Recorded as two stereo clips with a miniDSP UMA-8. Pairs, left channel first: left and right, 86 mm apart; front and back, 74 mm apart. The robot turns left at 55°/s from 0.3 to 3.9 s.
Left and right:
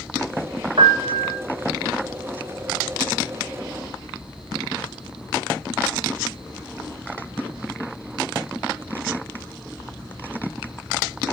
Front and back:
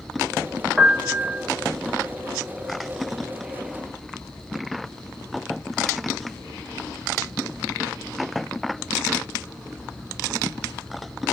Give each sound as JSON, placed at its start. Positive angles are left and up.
{"t": 0.8, "sound": "a piano", "azimuth_deg": -100, "distance_m": 0.9}